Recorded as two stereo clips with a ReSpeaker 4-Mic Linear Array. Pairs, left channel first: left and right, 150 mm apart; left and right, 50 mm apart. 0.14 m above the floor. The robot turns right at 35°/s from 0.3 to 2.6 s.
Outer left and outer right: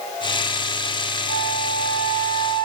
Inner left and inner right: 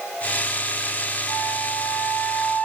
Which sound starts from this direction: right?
A flute, at 1.3 s.